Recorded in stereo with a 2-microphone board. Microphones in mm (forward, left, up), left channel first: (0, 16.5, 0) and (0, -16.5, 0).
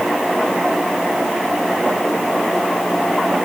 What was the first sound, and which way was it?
Only background noise.